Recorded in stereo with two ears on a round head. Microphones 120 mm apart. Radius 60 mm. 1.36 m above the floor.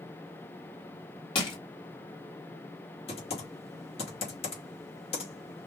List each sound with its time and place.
1.4 s crushing: 40° left (ahead or behind), 2.5 m
3.1 s typing on a keyboard: 45° left (ahead or behind), 2.5 m